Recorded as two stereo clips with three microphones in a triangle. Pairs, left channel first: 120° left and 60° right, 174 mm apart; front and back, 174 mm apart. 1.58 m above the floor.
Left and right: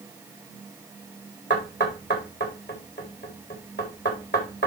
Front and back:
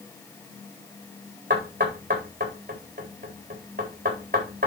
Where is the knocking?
140° left, 4 m.